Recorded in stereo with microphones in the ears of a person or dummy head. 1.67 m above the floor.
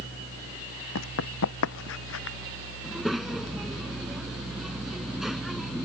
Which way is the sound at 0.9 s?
75° left (ahead or behind).